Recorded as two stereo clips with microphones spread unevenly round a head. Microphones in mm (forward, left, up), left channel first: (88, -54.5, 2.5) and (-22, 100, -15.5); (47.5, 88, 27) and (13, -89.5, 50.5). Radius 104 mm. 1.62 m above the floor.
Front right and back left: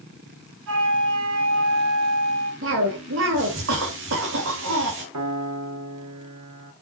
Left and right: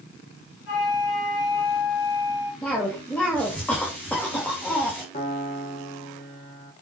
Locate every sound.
0.7 s a flute: 120° left, 4 m
2.6 s a cough: 165° left, 3 m
5.1 s a piano: 140° left, 2.5 m